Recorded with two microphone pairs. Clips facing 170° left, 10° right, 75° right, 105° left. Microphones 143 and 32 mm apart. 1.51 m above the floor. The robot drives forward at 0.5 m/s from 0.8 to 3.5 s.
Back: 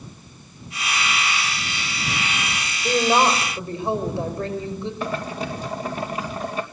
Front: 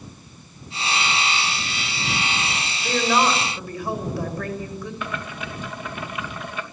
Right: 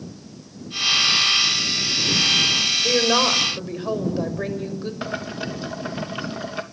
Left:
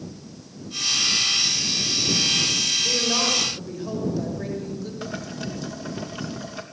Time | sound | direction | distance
2.8 | a woman speaking | 120° right | 5.5 m
5.0 | boiling | 135° right | 2.5 m